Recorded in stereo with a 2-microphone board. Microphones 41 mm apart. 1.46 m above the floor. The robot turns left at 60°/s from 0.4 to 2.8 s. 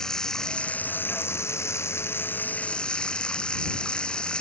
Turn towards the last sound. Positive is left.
turn(degrees=20)